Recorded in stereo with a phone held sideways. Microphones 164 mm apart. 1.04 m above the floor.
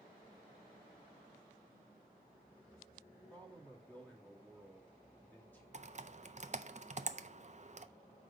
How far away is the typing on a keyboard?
About 0.5 m.